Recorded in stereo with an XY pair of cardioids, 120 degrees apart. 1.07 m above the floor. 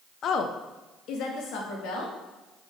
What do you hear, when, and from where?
0.2 s a woman speaking: 55° left, 0.6 m; by 2.1 s 80° left, 1.9 m